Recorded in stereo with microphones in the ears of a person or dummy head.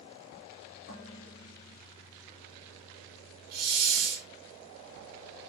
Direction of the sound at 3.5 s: 80° right.